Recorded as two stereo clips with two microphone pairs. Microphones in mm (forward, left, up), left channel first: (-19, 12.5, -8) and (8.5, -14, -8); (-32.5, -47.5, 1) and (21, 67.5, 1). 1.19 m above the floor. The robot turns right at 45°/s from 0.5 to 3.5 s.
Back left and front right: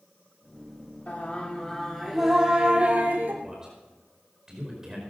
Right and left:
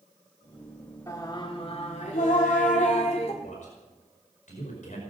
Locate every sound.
1.1 s singing: straight behind, 2.5 m; by 3.3 s 80° right, 2.5 m
3.4 s a man speaking: 125° right, 5 m; by 5.0 s 120° right, 5 m